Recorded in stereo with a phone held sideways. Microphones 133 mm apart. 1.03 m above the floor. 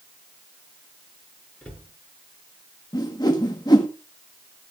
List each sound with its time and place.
1.6 s a cupboard door: 10° left (ahead or behind), 6.5 m
2.9 s a whoosh: 30° left (ahead or behind), 1.5 m